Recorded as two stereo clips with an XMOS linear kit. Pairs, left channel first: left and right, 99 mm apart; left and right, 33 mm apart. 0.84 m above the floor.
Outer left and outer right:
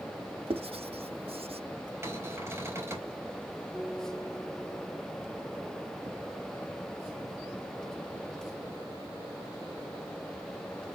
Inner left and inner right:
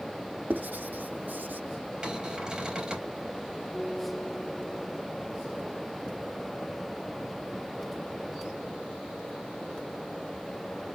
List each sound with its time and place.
0.5 s writing: 75° right (ahead or behind), 0.7 m
2.0 s a cupboard door: 25° right (ahead or behind), 3.5 m
3.7 s a guitar: 10° right (ahead or behind), 3 m